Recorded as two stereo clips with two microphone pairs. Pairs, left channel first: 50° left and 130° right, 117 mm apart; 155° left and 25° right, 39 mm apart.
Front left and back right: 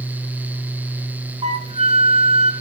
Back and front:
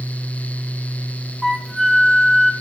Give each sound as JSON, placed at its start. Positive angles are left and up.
{"t": 1.4, "sound": "a flute", "azimuth_deg": -125, "distance_m": 3.0}